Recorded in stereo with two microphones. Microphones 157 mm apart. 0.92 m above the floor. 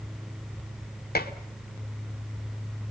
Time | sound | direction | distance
1.1 | dishes clattering | 80° left | 1.6 m